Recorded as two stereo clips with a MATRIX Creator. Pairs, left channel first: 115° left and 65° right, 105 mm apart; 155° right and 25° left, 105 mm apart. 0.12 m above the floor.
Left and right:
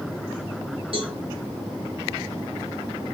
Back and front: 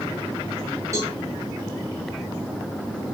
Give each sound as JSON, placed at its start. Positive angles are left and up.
{"t": 0.9, "sound": "a cowbell", "azimuth_deg": -40, "distance_m": 3.5}